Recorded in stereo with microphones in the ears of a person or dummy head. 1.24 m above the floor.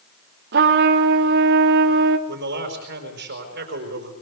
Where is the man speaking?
55° right (ahead or behind), 5 m.